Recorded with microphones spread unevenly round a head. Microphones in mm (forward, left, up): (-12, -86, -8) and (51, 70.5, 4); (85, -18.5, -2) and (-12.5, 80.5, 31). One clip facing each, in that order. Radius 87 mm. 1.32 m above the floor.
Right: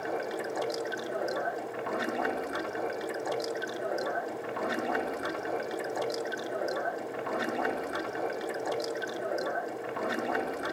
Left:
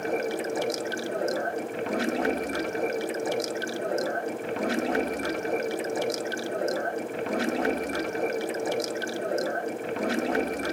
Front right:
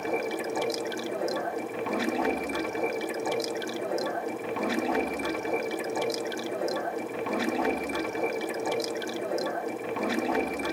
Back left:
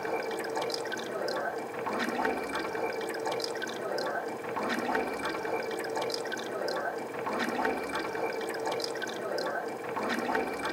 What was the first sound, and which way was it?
Running water, 25° left.